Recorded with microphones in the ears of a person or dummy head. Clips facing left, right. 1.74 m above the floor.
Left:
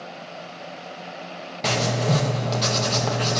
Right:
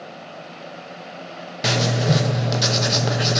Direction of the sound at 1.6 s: 15° right (ahead or behind).